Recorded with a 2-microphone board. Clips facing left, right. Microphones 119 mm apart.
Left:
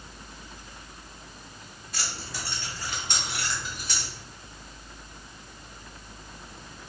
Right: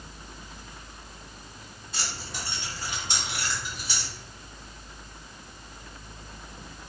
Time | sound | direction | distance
1.9 | keys jangling | 30° right (ahead or behind) | 1.1 m